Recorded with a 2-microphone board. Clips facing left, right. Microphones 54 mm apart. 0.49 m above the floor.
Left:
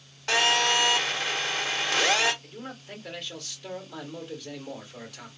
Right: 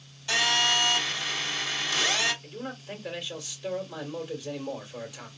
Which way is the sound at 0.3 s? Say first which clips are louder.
Left 2 dB; 60° left (ahead or behind).